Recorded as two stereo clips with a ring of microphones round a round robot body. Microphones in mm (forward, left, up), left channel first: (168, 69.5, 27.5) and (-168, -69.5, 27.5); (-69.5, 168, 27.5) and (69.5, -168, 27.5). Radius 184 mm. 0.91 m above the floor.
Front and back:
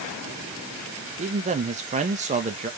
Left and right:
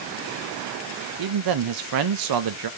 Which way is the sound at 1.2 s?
90° right.